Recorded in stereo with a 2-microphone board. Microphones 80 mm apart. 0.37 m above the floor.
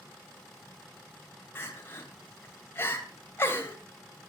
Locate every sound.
1.6 s crying: 30° left (ahead or behind), 2 m